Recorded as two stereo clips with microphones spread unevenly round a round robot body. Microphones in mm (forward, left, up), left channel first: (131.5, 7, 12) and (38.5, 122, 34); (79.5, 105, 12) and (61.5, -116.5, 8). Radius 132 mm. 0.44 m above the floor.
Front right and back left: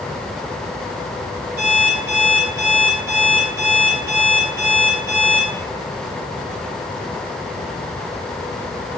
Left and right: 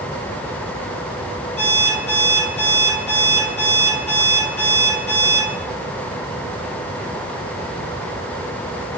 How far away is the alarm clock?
About 2 m.